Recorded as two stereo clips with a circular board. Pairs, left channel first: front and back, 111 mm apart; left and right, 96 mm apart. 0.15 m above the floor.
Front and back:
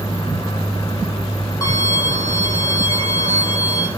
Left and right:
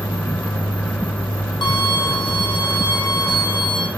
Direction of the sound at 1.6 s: 55° left.